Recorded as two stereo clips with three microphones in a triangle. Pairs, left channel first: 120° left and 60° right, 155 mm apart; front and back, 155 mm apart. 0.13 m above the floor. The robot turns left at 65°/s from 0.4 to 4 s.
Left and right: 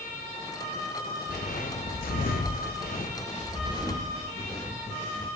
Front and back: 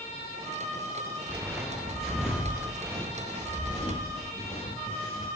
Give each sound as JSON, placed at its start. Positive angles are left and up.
{"t": 1.3, "sound": "footsteps", "azimuth_deg": 100, "distance_m": 0.8}